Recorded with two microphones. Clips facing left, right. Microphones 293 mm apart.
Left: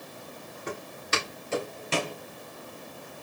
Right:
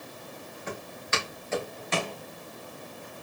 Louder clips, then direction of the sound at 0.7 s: Left 1 dB; 40° left (ahead or behind).